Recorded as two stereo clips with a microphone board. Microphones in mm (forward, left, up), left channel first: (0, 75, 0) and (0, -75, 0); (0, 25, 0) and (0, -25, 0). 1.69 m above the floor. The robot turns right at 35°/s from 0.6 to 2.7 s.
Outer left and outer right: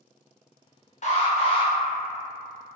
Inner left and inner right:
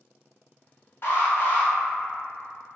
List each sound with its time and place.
1.0 s an alarm: 50° left (ahead or behind), 0.6 m; by 1.7 s 35° left (ahead or behind), 0.6 m